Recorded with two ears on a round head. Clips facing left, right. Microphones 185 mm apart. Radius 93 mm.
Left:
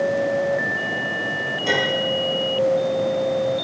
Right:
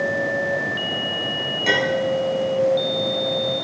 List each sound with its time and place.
1.6 s a clink: 80° right, 5.5 m